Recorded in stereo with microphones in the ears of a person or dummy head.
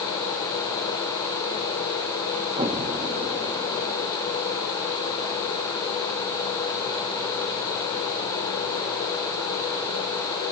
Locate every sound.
2.6 s an explosion: 20° right (ahead or behind), 1.5 m